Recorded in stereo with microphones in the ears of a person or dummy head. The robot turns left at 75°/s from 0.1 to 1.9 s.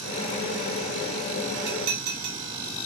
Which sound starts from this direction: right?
Dishes clattering, at 1.7 s.